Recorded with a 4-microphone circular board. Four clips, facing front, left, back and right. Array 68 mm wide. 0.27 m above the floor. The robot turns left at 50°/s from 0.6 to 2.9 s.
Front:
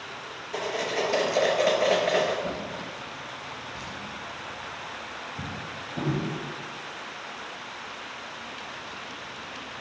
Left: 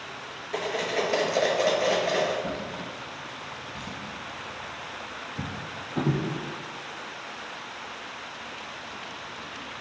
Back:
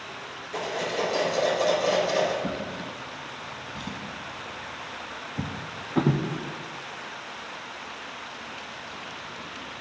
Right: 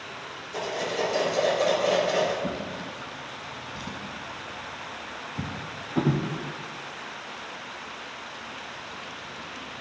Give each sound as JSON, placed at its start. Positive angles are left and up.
{"t": 0.5, "sound": "cutlery clinking", "azimuth_deg": 90, "distance_m": 3.0}
{"t": 2.4, "sound": "a drawer", "azimuth_deg": -140, "distance_m": 1.0}